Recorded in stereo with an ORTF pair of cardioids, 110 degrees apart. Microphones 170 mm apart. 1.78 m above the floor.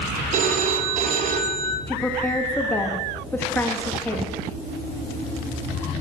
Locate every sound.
0.3 s a phone ringing: 50° right, 2 m
1.9 s a woman speaking: 10° left, 3 m